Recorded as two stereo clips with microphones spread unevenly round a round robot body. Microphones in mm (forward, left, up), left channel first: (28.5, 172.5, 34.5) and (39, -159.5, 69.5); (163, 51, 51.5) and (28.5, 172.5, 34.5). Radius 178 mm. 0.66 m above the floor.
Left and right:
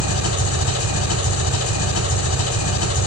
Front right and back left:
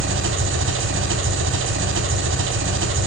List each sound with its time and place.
0.0 s an engine running: 145° left, 1.4 m